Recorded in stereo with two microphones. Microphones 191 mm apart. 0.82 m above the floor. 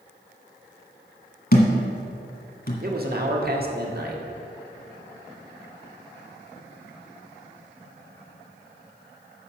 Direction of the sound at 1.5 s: 55° left (ahead or behind).